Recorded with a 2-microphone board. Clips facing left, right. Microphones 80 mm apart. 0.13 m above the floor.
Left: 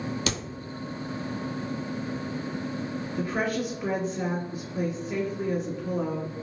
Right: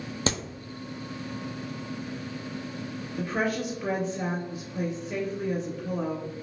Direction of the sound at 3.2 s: 5° left (ahead or behind).